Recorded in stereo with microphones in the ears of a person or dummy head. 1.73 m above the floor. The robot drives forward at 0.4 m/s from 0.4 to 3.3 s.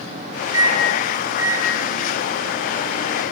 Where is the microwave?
10° right (ahead or behind), 0.5 m; by 3.3 s 5° right (ahead or behind), 1.6 m.